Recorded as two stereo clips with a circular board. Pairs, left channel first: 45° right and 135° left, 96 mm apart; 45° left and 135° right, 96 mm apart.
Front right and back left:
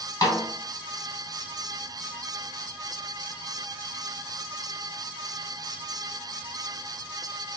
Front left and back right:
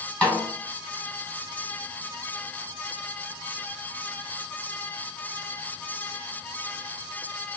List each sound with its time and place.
0.2 s a snare drum: 25° right, 1.5 m